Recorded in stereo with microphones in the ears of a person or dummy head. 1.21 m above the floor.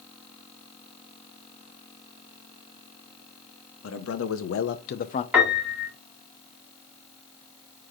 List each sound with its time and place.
3.8 s a man speaking: 75° left (ahead or behind), 1.0 m; by 5.2 s 30° left (ahead or behind), 0.5 m
5.3 s a piano: 10° right (ahead or behind), 1.8 m